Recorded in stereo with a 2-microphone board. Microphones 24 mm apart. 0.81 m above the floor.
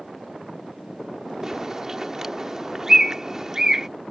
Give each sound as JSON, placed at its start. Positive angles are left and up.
{"t": 1.4, "sound": "a bird", "side_deg": -25}